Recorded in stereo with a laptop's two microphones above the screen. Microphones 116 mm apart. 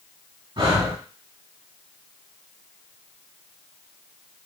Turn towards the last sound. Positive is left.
turn(degrees=-50)  # may be behind; listen again after turning